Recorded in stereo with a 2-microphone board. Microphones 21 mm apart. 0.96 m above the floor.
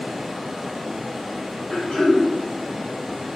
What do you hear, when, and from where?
0.0 s running water: 15° right (ahead or behind), 1.6 m
1.7 s throat clearing: 70° left (ahead or behind), 1.9 m